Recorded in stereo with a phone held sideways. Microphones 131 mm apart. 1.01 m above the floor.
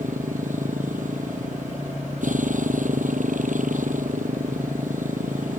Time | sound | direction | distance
0.0 | a motorcycle | 75° right (ahead or behind) | ?